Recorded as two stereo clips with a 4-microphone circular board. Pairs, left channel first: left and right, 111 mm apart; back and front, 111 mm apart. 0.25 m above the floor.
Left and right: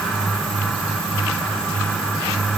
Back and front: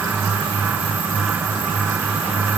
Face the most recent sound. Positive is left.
No sound to turn to.